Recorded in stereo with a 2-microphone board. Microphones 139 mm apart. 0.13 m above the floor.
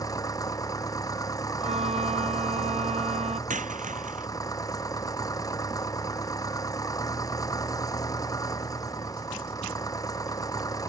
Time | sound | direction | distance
0.0 | an engine running | 25° left (ahead or behind) | ?
1.6 | a violin | 45° right (ahead or behind) | ?
3.5 | a dropped coin | 65° right (ahead or behind) | ?